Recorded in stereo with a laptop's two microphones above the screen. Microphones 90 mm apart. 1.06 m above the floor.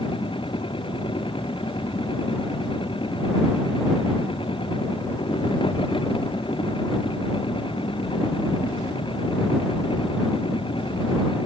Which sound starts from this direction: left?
A machine running, at 0.0 s.